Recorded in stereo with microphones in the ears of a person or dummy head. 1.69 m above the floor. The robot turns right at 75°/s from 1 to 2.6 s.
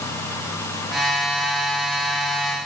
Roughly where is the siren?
I don't hear a siren.